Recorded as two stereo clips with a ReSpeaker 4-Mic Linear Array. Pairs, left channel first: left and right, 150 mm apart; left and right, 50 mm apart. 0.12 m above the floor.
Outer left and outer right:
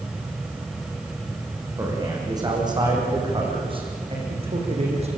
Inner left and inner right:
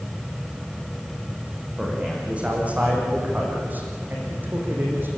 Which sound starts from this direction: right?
A man speaking, at 1.8 s.